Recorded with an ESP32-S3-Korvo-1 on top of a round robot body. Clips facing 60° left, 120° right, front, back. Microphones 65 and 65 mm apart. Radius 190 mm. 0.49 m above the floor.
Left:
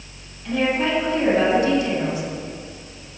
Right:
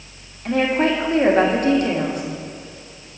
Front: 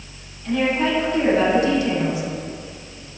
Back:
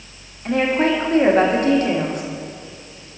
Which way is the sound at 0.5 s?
150° right.